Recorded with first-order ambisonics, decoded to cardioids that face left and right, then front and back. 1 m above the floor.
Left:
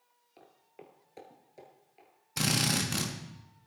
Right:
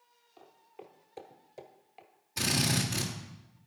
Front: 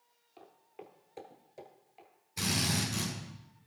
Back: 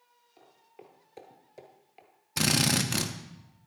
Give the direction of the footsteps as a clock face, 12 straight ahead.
10 o'clock.